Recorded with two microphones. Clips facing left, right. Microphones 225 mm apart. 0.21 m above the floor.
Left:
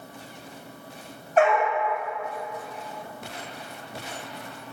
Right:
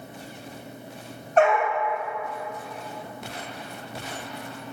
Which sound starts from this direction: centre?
A dog barking, at 1.4 s.